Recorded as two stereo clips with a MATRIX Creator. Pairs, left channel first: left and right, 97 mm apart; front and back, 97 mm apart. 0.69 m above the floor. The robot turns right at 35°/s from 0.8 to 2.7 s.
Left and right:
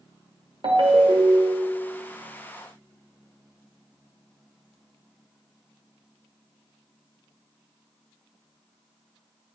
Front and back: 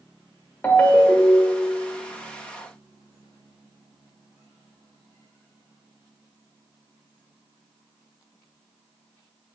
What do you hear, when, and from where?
0.6 s a ringtone: 70° right, 0.6 m; by 1.7 s 40° right, 0.6 m